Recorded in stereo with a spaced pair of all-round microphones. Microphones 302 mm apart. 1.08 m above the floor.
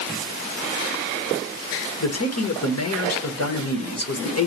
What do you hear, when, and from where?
2.0 s a man speaking: 55° left (ahead or behind), 1.2 m